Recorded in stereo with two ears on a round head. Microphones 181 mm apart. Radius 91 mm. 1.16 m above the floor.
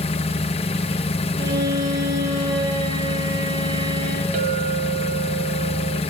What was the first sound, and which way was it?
An engine running, 30° left (ahead or behind).